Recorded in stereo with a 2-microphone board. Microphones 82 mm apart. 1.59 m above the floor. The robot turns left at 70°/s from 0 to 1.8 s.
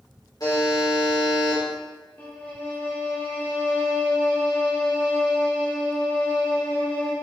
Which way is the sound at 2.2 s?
20° left (ahead or behind).